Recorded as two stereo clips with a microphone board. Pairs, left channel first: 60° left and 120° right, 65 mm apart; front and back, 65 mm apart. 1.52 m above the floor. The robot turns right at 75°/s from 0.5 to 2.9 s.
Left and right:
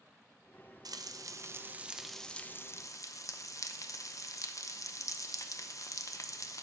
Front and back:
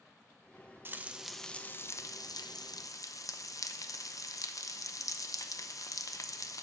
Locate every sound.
0.8 s frying: 125° right, 0.6 m; by 6.6 s 30° left, 0.6 m